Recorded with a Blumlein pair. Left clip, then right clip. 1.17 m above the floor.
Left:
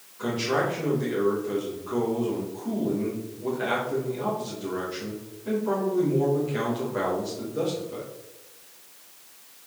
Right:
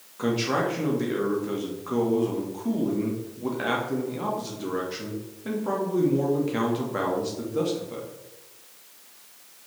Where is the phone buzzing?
I don't hear a phone buzzing.